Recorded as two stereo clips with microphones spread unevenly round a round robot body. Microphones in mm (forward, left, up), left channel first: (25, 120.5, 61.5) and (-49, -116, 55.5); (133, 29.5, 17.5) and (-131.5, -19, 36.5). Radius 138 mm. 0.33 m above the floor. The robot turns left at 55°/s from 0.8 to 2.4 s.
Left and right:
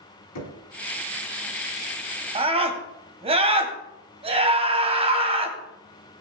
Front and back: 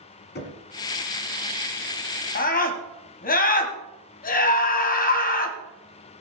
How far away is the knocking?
About 2.5 m.